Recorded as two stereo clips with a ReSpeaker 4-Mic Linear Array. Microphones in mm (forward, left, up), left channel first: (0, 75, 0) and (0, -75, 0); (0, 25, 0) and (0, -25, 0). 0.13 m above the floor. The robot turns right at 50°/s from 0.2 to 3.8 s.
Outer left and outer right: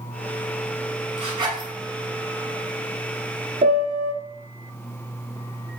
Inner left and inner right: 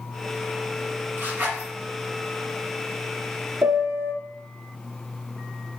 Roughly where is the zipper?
Right.